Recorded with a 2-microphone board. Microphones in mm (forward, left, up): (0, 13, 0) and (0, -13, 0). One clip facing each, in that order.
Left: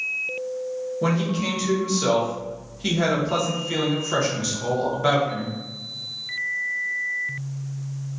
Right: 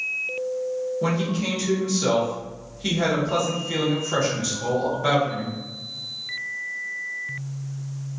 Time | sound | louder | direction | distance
1.0 | a man speaking | left 4 dB | 10° left (ahead or behind) | 1.0 m